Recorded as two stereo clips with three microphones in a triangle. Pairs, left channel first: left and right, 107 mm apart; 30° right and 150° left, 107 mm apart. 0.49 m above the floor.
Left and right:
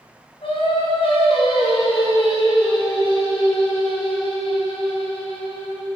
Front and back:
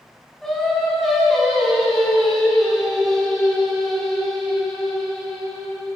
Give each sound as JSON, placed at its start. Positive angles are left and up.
{"t": 0.4, "sound": "singing", "azimuth_deg": 55, "distance_m": 4.5}